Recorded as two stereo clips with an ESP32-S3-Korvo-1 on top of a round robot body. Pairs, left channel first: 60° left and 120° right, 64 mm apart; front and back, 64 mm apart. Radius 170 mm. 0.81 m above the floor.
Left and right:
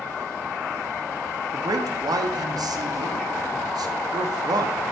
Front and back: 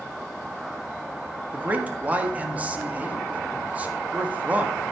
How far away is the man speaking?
About 1.4 m.